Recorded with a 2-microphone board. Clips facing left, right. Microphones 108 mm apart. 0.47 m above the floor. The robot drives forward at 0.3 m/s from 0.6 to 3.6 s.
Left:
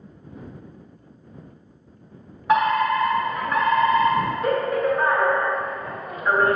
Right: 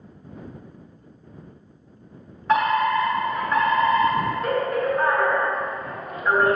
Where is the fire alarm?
10° left (ahead or behind), 1.7 m.